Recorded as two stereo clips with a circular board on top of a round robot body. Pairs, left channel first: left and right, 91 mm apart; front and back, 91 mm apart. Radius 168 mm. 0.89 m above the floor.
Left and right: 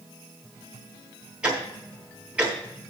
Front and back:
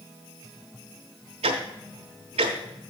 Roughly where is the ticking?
Behind.